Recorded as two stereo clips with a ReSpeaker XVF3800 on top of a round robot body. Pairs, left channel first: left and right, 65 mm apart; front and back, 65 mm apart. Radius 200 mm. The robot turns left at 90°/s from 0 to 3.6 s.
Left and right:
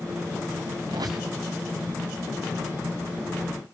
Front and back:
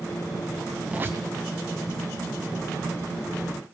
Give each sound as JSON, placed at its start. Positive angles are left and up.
{"t": 0.9, "sound": "a squeak", "azimuth_deg": -105, "distance_m": 0.5}